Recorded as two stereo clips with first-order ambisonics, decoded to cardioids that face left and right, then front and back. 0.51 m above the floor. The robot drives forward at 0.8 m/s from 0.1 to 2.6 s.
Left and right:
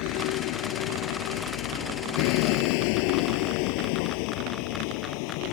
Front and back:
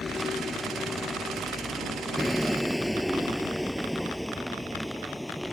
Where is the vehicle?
75° left; by 5.5 s 90° left.